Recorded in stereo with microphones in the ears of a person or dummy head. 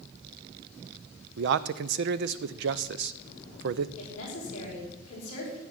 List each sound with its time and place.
1.4 s a man speaking: 65° right (ahead or behind), 0.7 m
4.0 s a woman speaking: 40° left (ahead or behind), 5.5 m